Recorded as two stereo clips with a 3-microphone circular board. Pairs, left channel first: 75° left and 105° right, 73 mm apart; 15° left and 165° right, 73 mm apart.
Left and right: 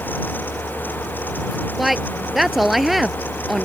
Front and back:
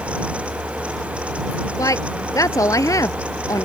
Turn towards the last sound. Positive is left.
turn(degrees=-20)